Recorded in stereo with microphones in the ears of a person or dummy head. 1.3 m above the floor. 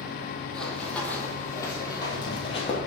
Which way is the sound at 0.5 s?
5° left (ahead or behind).